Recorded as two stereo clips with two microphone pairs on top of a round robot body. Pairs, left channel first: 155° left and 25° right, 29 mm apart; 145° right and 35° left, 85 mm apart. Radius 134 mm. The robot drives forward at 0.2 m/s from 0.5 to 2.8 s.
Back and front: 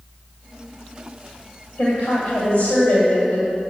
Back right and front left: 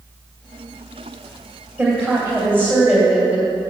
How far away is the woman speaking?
About 2 m.